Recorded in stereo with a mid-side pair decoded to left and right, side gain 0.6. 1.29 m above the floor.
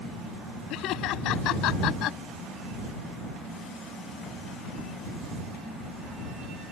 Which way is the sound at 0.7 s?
65° left.